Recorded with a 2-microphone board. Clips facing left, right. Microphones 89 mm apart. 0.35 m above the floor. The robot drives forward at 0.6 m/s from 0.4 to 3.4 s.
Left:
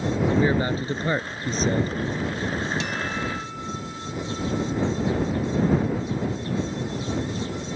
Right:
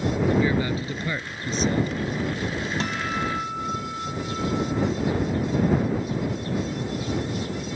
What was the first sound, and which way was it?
A man speaking, 35° left (ahead or behind).